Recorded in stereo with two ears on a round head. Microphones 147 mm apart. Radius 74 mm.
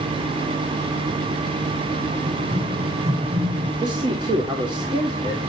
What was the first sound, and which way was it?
Running footsteps, 25° right (ahead or behind).